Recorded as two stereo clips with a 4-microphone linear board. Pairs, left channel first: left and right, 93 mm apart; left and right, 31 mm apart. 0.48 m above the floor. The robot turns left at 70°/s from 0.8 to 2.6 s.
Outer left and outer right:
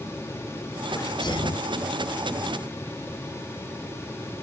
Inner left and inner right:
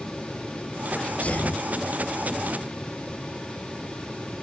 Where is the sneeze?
145° left, 2.5 m; by 1.7 s 95° left, 2.5 m.